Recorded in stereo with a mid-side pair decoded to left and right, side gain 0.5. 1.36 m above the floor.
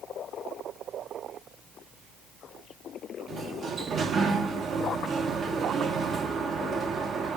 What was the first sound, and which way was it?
A sliding door, 45° right.